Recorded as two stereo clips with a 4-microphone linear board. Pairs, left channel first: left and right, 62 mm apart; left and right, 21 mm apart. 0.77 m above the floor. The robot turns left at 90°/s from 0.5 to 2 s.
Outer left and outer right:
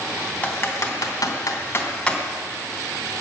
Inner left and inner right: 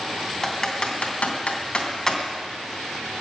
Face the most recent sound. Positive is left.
turn(degrees=15)  # may be behind; listen again after turning